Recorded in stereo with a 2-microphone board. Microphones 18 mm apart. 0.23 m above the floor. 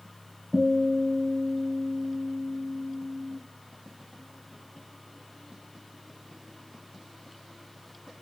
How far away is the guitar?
About 2.5 m.